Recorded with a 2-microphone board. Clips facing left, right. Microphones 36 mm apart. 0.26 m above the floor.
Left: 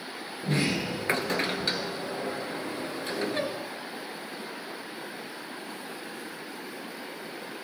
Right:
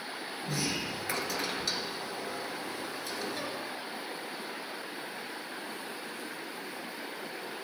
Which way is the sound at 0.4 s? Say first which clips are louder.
Left 7 dB; 40° left (ahead or behind).